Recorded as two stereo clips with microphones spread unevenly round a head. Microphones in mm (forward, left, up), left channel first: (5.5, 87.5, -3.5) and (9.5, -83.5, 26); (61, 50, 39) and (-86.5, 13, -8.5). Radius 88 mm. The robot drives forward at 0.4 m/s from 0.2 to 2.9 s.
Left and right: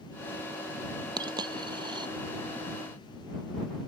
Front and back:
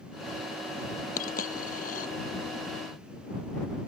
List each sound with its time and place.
1.2 s a dropped coin: 25° right